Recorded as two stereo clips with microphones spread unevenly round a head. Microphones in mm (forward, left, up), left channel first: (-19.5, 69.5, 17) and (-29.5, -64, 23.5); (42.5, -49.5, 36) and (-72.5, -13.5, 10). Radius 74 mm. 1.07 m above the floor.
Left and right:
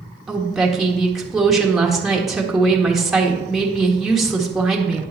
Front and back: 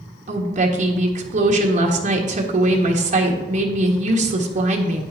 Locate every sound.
0.3 s a woman speaking: straight behind, 1.6 m